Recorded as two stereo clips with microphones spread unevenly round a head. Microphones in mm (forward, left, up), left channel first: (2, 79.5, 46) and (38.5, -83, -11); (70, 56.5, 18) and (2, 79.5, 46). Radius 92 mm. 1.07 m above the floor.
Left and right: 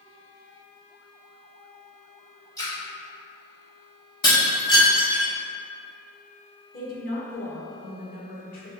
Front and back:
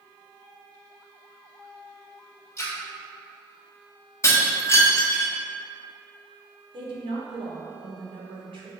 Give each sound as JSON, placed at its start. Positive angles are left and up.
{"t": 2.6, "sound": "a splash", "azimuth_deg": 25, "distance_m": 1.8}
{"t": 4.2, "sound": "breaking glass", "azimuth_deg": 40, "distance_m": 1.2}
{"t": 6.7, "sound": "a woman speaking", "azimuth_deg": 150, "distance_m": 1.2}